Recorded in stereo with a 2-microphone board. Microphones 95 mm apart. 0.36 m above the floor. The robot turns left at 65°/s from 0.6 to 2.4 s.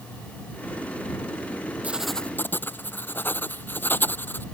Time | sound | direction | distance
1.8 | writing | 165° right | ?